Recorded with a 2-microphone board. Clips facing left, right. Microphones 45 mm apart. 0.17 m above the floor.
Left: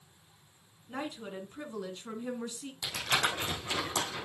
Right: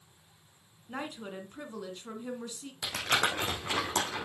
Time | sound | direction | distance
0.9 | a woman speaking | 15° right (ahead or behind) | 2 m
2.8 | crumpling | 55° right (ahead or behind) | 4.5 m